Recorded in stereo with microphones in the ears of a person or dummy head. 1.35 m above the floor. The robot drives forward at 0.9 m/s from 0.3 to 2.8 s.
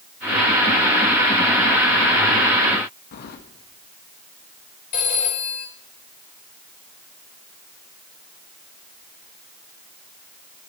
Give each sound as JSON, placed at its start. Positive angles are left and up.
{"t": 3.1, "sound": "keys jangling", "side_deg": 55, "distance_m": 1.3}
{"t": 4.9, "sound": "a phone ringing", "side_deg": 45, "distance_m": 3.0}